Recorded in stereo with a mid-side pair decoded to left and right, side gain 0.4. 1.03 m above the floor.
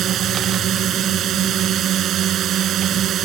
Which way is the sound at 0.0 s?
70° right.